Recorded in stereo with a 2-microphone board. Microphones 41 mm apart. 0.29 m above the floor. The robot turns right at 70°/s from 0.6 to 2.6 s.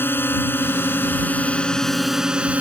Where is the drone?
80° left; by 2.6 s 140° right.